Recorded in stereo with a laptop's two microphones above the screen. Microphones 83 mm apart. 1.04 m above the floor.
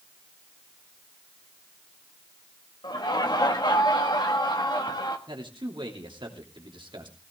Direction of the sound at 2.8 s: 60° left (ahead or behind).